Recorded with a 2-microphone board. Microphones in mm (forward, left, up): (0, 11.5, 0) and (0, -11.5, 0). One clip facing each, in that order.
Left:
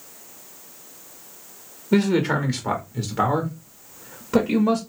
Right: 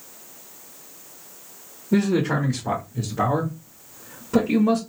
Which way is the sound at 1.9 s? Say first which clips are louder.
Left 1 dB; 70° left (ahead or behind).